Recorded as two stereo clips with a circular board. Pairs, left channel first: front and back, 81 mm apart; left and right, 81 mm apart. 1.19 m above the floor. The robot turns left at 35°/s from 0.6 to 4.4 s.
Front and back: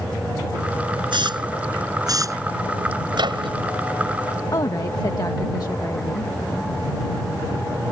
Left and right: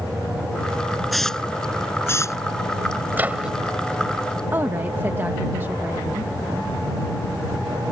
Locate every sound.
1.1 s a hiss: straight behind; by 2.4 s 135° left
3.1 s a microwave: 155° right; by 3.5 s 170° right
4.5 s a woman speaking: 30° right